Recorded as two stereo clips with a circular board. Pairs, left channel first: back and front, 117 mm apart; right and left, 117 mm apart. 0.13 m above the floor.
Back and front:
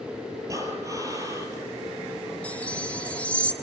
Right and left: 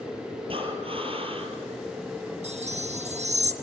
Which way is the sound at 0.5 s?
60° left.